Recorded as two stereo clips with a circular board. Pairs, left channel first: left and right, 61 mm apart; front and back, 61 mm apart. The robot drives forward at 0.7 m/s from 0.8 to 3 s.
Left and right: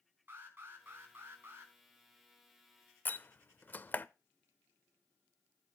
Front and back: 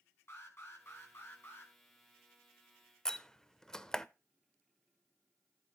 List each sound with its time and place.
0.3 s an alarm: 40° right, 4.5 m; by 1.7 s 45° right, 4 m
3.0 s a door slam: 70° left, 0.6 m